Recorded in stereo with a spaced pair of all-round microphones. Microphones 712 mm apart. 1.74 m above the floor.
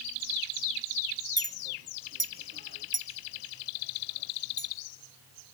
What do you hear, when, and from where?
1.4 s a clink: 15° right (ahead or behind), 0.9 m